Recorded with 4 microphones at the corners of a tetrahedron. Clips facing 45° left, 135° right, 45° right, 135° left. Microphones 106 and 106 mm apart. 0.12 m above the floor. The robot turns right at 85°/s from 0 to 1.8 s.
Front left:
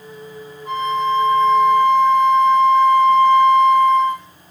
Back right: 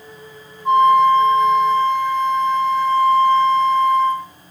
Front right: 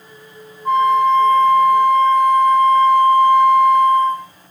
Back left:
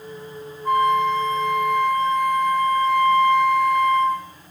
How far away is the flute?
About 5 m.